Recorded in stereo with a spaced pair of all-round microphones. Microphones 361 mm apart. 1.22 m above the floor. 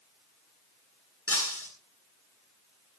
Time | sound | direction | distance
1.3 | breaking glass | 35° left (ahead or behind) | 9.5 m